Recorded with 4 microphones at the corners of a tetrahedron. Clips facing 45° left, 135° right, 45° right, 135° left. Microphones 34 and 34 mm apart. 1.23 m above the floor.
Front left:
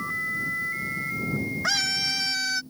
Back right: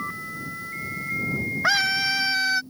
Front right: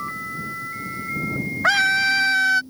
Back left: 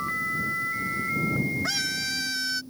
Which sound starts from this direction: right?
A scream, at 1.6 s.